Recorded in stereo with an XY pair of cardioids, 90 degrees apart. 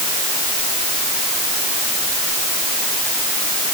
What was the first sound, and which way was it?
Only background noise.